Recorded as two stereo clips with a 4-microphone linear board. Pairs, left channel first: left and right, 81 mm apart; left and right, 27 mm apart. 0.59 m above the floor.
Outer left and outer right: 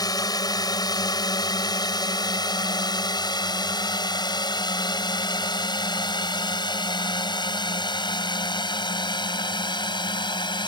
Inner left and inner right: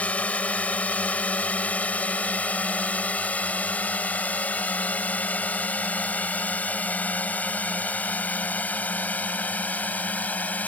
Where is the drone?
55° left (ahead or behind); by 10.7 s 70° left (ahead or behind).